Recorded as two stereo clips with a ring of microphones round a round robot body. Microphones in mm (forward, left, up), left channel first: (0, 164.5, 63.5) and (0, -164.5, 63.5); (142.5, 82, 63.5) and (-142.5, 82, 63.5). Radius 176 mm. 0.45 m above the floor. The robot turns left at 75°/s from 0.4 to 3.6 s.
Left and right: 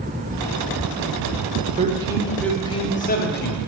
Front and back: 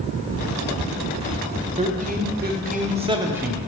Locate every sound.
1.8 s a man speaking: 135° right, 0.8 m; by 3.6 s 85° left, 0.8 m